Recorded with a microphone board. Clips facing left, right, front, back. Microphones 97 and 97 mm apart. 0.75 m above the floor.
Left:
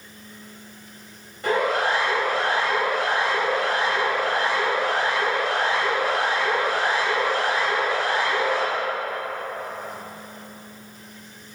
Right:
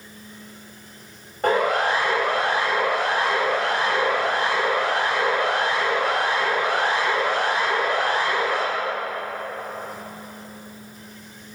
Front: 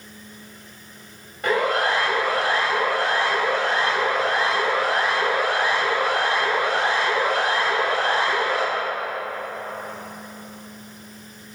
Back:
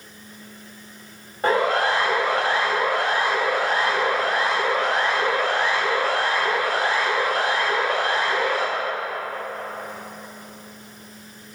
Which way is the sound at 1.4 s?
125° right.